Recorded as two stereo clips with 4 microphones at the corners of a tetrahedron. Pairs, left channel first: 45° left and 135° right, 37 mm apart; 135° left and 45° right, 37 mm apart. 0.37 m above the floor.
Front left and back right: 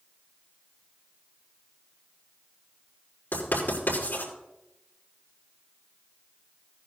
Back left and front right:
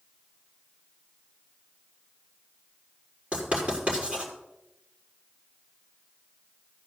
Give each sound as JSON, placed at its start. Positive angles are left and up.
{"t": 3.3, "sound": "writing", "azimuth_deg": 15, "distance_m": 6.0}